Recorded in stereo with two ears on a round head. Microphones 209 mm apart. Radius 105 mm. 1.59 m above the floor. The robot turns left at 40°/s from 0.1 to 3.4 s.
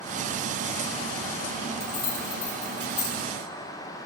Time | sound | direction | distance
1.8 | keys jangling | 75° left (ahead or behind) | 2.5 m